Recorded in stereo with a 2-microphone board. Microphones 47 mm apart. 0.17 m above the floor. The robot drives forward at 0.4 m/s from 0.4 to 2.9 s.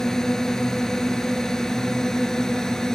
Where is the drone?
10° left (ahead or behind).